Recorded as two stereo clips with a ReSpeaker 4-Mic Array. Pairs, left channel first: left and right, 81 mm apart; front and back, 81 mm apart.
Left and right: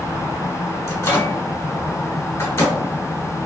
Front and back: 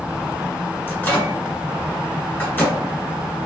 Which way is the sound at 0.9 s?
50° left.